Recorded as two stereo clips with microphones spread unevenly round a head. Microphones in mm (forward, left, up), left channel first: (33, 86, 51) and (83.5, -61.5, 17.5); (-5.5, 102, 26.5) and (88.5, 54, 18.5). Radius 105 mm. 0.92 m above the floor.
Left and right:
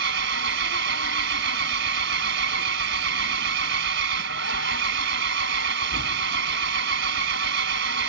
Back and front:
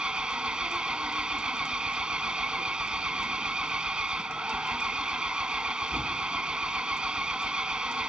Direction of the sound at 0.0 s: 115° right.